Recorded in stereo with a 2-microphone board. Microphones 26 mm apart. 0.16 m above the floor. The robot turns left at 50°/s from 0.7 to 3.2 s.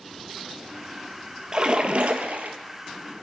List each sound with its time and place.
1.5 s a splash: 35° right, 0.6 m; by 2.6 s 85° right, 0.6 m